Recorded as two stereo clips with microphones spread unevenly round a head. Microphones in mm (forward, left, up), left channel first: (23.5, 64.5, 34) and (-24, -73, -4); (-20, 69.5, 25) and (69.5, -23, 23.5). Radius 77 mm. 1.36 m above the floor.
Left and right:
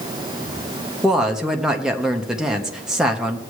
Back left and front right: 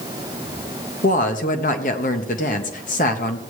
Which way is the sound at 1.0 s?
170° left.